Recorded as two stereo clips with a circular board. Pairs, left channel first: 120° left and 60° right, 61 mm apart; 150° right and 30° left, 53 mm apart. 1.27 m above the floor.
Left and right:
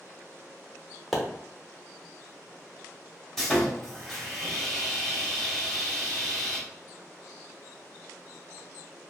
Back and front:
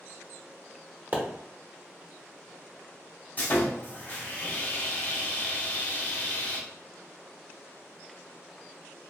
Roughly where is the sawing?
Behind.